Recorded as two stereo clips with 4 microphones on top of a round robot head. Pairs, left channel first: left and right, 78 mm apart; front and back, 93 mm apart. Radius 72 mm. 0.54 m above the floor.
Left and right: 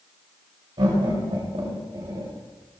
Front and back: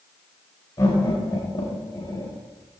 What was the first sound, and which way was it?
Laughter, 60° right.